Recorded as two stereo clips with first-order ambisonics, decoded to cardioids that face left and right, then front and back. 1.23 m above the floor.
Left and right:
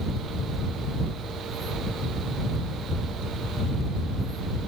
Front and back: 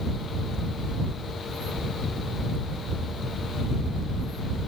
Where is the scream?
I don't hear a scream.